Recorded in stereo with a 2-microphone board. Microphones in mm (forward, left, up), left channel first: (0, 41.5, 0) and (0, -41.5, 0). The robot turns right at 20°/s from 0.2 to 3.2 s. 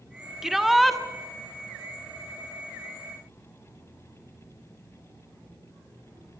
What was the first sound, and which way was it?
A shout, 5° right (ahead or behind).